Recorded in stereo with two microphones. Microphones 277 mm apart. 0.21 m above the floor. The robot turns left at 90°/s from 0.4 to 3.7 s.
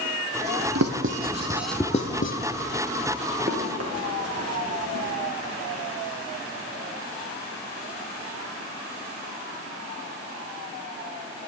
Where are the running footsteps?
35° right (ahead or behind), 2.5 m; by 5.1 s 65° right (ahead or behind), 3.5 m.